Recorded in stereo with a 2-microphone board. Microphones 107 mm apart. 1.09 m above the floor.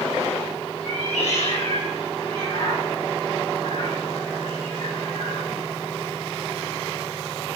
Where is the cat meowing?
75° left (ahead or behind), 4 m; by 5.5 s 70° left (ahead or behind), 6 m.